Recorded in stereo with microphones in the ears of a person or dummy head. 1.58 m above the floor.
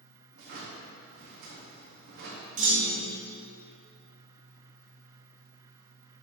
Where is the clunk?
45° right (ahead or behind), 0.7 m.